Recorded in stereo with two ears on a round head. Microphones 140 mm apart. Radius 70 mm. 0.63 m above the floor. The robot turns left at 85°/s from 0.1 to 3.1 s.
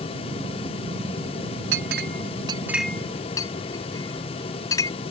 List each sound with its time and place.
1.7 s a clink: 80° right; by 4.9 s 20° left (ahead or behind)